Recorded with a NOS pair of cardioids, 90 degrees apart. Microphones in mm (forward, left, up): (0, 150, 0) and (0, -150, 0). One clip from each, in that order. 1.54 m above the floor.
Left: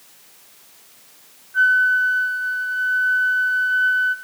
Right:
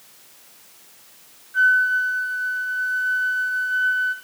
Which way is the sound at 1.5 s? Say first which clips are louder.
Left 2 dB; 15° right.